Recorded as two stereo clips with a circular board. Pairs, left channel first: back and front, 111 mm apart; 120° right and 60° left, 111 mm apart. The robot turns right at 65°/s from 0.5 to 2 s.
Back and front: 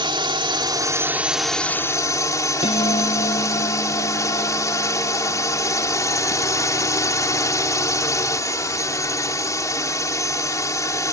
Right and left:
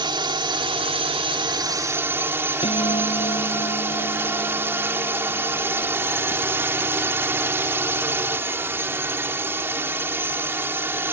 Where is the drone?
30° left; by 11.1 s 125° left.